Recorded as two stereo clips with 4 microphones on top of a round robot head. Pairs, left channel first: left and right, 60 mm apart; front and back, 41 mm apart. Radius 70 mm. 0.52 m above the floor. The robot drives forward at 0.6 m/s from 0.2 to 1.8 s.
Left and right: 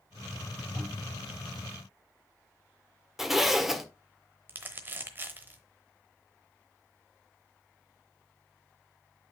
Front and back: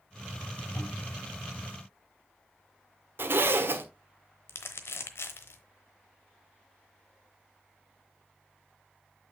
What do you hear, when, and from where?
0.8 s a cupboard door: 40° right, 4 m; by 1.2 s 45° right, 3.5 m
3.2 s a zipper: 175° right, 1.3 m
4.5 s crumpling: 30° right, 0.9 m